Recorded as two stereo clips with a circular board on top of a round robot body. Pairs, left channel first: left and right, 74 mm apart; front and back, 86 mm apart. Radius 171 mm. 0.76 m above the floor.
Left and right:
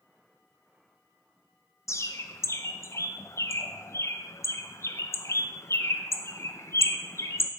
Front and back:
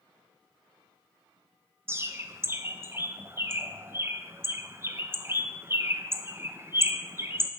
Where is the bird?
125° left, 0.6 m.